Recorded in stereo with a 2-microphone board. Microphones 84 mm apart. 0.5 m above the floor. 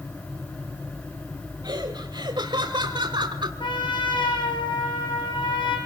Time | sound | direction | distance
1.6 | laughter | 55° right (ahead or behind) | 2.5 m
3.6 | a trumpet | 65° left (ahead or behind) | 5.5 m